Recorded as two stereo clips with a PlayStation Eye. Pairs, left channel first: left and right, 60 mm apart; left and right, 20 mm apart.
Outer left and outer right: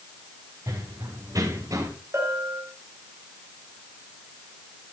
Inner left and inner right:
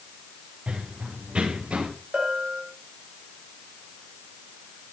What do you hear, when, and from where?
0.7 s running footsteps: 80° right, 4 m; by 1.9 s 70° right (ahead or behind), 3.5 m
2.1 s a bell: 45° right (ahead or behind), 3.5 m